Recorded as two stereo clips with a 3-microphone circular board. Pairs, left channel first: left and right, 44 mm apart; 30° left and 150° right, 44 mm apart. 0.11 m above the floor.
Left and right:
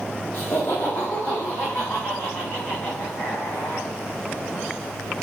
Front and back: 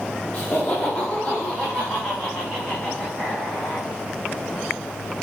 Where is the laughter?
80° left, 4.5 m; by 3.9 s 105° left, 6 m.